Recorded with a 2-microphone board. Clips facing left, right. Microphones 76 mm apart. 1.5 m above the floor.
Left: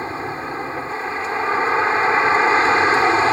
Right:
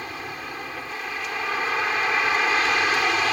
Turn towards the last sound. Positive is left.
turn(degrees=35)  # may be behind; listen again after turning